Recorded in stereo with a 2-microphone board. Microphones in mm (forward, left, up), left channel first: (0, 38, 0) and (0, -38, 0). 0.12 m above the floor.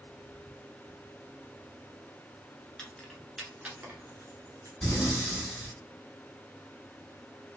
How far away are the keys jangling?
About 0.9 m.